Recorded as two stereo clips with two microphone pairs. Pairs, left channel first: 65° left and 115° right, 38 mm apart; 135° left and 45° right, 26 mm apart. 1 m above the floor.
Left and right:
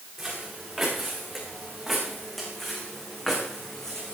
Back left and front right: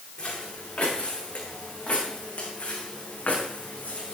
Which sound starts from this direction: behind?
Footsteps, at 0.2 s.